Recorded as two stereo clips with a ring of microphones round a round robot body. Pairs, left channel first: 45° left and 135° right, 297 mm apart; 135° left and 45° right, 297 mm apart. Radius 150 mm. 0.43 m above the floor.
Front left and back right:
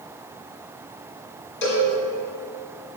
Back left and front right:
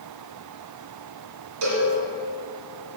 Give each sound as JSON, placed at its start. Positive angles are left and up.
{"t": 1.6, "sound": "a cowbell", "azimuth_deg": -10, "distance_m": 2.0}